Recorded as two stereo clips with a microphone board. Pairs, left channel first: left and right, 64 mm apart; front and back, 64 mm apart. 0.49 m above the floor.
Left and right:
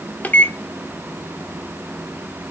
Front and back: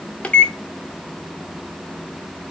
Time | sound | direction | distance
0.2 | a microwave | 55° left | 0.5 m